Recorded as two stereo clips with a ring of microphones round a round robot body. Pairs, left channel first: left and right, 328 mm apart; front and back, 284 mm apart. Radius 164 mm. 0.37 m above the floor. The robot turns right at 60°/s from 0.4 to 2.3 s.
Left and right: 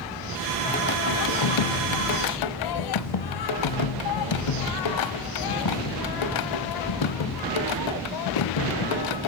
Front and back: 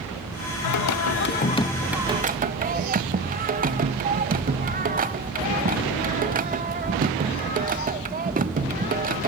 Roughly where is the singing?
Ahead.